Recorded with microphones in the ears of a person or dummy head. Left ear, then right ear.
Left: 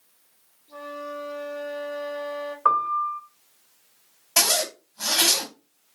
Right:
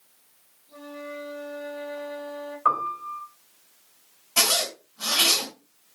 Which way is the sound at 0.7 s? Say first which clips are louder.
Left 3 dB; 65° left (ahead or behind).